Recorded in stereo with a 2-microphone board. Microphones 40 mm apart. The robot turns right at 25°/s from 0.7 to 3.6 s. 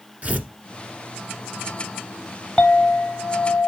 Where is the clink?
20° left (ahead or behind), 1.5 m; by 3.7 s 50° left (ahead or behind), 1.5 m.